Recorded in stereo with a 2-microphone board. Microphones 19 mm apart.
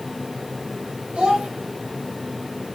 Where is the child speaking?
80° right, 2.0 m.